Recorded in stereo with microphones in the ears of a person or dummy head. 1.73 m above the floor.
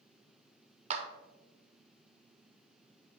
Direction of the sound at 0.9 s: 35° right (ahead or behind).